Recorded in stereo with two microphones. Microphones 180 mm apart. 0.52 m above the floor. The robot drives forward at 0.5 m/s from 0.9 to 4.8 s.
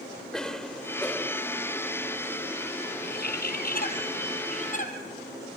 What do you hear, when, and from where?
0.3 s a cough: 5° left (ahead or behind), 1.5 m
3.0 s a bird: 65° left (ahead or behind), 2 m; by 4.9 s 45° left (ahead or behind), 2.5 m